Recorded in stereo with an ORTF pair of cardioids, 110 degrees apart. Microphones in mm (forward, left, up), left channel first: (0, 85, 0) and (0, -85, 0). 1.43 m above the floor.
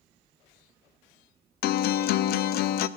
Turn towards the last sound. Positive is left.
turn(degrees=65)